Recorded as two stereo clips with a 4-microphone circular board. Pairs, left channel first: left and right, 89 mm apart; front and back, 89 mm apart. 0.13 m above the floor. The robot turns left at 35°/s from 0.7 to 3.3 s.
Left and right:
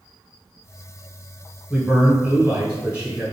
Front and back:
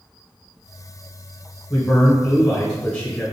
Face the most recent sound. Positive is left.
turn(degrees=-65)